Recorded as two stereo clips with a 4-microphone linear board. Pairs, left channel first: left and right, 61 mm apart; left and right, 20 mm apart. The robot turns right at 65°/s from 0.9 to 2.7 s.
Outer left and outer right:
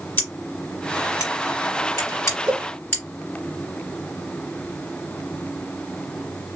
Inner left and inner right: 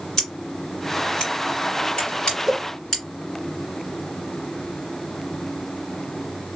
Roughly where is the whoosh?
Right.